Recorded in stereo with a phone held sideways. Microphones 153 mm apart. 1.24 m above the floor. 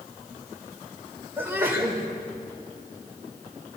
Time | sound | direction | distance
1.4 | a sneeze | 15° right (ahead or behind) | 4.5 m